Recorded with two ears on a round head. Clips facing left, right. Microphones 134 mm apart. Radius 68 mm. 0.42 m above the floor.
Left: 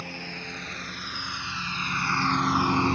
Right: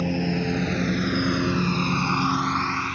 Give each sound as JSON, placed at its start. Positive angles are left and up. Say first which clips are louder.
{"t": 0.0, "sound": "a lawn mower", "louder": "right 15 dB", "side_deg": -65}